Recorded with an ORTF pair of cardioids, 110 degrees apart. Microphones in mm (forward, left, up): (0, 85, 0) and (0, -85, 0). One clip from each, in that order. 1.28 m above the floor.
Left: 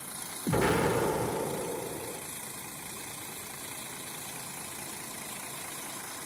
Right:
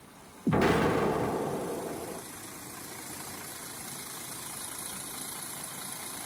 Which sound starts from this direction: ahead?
An explosion, at 0.5 s.